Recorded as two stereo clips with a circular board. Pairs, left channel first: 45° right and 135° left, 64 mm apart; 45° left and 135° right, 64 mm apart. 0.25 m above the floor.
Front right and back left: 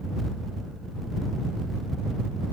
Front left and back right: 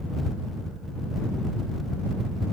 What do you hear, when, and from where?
Only background noise.